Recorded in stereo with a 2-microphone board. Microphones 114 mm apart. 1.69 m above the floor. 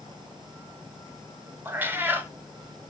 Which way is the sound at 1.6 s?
15° right (ahead or behind).